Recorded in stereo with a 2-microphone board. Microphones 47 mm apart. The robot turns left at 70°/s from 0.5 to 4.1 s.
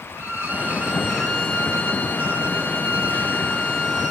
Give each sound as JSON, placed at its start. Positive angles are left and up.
{"t": 0.1, "sound": "a violin", "azimuth_deg": -120, "distance_m": 1.9}